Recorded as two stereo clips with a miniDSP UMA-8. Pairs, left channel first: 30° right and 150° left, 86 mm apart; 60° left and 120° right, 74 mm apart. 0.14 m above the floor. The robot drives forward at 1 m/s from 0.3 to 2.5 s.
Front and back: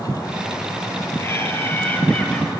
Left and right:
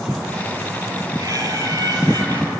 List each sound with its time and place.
1.2 s laughter: 85° right, 4 m; by 2.5 s 110° right, 4 m